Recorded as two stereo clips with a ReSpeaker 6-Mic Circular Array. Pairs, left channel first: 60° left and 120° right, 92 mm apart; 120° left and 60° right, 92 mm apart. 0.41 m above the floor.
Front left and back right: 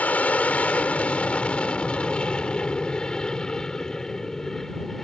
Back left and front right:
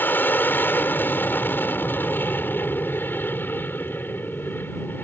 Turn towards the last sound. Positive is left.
turn(degrees=140)